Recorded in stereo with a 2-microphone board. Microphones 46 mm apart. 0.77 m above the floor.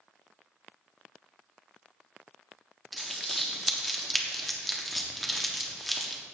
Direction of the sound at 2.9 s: Centre (ahead or behind).